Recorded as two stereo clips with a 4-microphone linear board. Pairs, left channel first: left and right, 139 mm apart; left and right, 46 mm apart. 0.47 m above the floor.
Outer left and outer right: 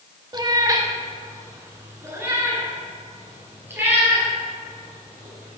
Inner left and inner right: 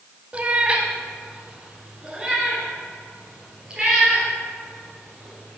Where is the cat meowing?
30° right (ahead or behind), 0.6 m; by 5.6 s 15° right (ahead or behind), 4 m.